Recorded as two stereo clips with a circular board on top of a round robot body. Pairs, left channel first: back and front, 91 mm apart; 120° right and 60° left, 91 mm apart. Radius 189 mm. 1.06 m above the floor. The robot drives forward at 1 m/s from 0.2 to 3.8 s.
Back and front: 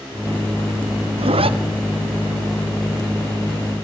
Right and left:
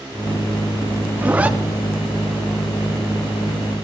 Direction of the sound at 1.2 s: 15° right.